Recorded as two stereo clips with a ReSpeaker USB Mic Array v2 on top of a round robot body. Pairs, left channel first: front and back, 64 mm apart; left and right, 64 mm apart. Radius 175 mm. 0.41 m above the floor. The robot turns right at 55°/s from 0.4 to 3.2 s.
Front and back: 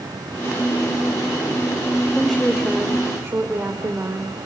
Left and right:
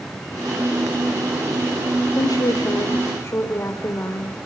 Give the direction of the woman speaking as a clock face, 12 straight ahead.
9 o'clock.